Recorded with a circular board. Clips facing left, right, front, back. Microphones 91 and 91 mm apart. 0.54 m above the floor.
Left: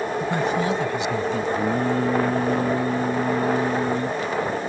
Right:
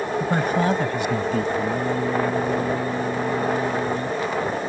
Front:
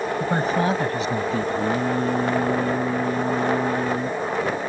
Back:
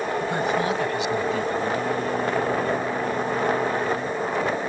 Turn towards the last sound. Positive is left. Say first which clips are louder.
# left 1 dB, front 2 dB
turn(degrees=50)